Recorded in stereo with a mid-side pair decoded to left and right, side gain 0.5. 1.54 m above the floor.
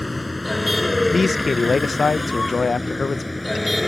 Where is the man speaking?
30° left.